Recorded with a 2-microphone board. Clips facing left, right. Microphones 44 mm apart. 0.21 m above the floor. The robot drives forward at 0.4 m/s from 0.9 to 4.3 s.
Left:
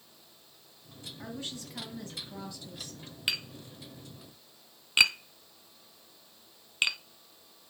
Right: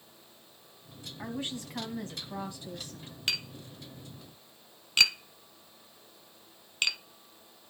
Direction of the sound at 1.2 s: 30° right (ahead or behind).